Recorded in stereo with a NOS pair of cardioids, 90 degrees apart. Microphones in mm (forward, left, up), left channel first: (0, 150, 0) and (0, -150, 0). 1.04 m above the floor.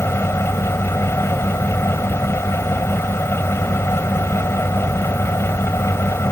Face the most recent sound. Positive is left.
turn(degrees=10)